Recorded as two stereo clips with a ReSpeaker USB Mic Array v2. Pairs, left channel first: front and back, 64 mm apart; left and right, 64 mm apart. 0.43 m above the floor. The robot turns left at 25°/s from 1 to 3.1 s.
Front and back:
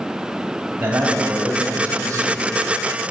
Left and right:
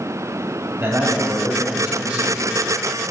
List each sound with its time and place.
0.8 s a man speaking: 125° right, 2.5 m; by 2.5 s 165° right, 2.5 m